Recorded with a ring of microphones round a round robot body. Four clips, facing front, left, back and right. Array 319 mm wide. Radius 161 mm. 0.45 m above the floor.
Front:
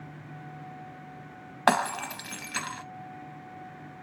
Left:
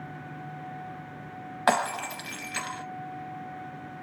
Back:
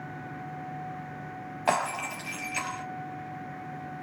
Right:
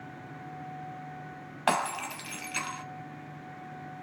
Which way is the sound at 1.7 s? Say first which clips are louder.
Left 3 dB, front 3 dB; 10° left.